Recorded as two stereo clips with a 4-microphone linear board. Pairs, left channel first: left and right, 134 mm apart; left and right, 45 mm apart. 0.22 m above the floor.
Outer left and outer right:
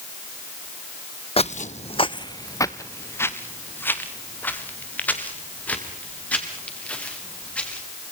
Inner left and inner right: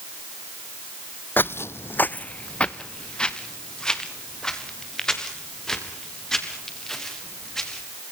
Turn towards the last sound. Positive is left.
turn(degrees=10)  # may be behind; listen again after turning